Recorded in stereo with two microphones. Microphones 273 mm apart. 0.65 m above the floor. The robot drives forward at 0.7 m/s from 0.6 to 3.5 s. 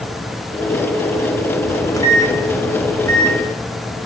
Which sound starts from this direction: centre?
A microwave, at 1.7 s.